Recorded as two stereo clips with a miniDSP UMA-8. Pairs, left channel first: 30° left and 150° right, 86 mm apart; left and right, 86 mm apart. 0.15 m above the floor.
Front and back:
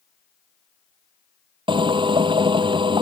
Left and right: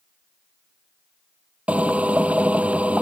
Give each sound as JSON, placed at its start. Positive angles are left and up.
{"t": 1.7, "sound": "a drill", "azimuth_deg": -165}